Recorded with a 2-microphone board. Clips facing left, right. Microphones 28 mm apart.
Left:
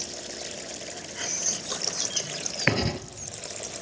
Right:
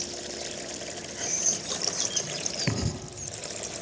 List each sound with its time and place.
1.1 s whispering: 20° left (ahead or behind), 2.0 m
2.7 s writing: 45° left (ahead or behind), 1.3 m